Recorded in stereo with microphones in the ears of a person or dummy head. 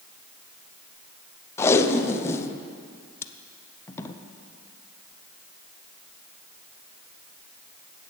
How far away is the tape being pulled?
About 0.7 m.